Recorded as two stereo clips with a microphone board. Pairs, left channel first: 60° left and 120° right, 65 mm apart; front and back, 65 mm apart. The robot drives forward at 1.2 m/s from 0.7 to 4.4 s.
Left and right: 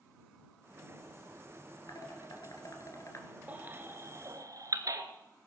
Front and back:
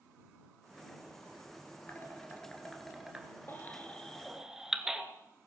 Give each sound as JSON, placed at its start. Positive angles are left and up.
{"t": 1.9, "sound": "dishes clattering", "azimuth_deg": 60, "distance_m": 2.5}
{"t": 3.5, "sound": "a baby crying", "azimuth_deg": -55, "distance_m": 1.7}